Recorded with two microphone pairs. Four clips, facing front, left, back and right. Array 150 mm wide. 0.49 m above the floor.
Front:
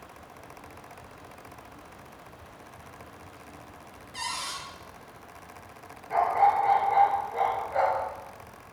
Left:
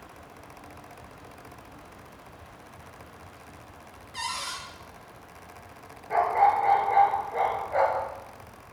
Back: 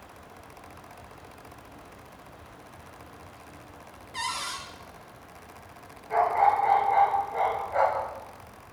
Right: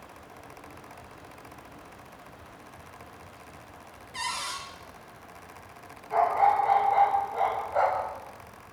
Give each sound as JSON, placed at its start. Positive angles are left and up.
{"t": 4.1, "sound": "a cupboard door", "azimuth_deg": 175, "distance_m": 3.5}
{"t": 6.1, "sound": "a dog barking", "azimuth_deg": 95, "distance_m": 3.0}